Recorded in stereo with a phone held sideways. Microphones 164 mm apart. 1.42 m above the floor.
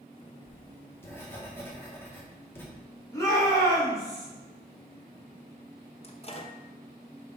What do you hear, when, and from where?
0.5 s writing: 15° left (ahead or behind), 1.7 m
3.1 s a shout: 20° left (ahead or behind), 3 m
6.0 s a microwave: 40° left (ahead or behind), 0.9 m